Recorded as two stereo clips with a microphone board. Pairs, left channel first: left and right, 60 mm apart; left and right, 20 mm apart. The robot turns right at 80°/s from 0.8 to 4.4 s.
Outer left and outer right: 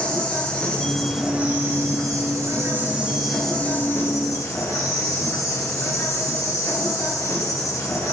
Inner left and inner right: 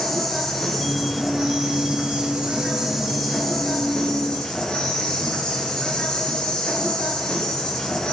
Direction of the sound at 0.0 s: 160° left.